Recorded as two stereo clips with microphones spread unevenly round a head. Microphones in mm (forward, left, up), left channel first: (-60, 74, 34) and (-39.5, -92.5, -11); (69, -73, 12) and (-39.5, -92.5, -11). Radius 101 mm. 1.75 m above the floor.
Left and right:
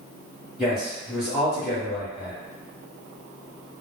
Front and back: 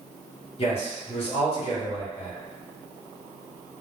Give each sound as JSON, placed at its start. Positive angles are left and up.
{"t": 0.6, "sound": "a man speaking", "azimuth_deg": 10, "distance_m": 1.1}